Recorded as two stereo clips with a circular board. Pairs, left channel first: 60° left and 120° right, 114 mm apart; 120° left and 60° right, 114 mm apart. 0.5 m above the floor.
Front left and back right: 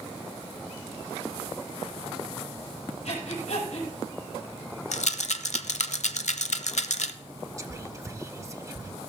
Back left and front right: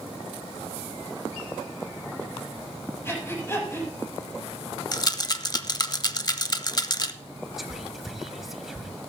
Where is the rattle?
65° left, 0.7 m.